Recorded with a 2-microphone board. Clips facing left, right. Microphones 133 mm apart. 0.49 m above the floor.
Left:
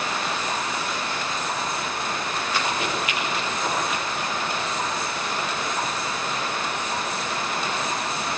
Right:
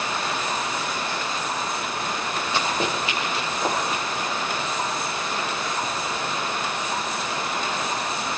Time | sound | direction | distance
2.5 | running footsteps | 20° right (ahead or behind) | 7 m